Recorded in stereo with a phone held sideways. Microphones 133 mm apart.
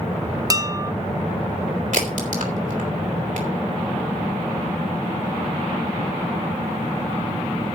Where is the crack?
70° right (ahead or behind), 3.5 m.